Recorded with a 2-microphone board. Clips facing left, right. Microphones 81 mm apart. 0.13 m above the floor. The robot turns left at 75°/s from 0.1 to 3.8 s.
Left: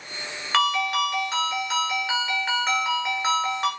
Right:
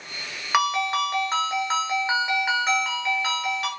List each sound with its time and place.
0.5 s a ringtone: 20° right, 0.8 m; by 3.7 s 105° left, 0.8 m